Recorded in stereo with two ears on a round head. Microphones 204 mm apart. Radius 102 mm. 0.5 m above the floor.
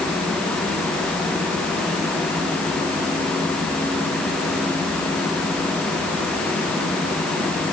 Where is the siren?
No siren in this recording.